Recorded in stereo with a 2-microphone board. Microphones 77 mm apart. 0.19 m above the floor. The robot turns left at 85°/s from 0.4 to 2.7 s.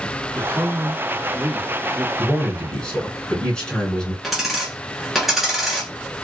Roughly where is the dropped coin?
Centre.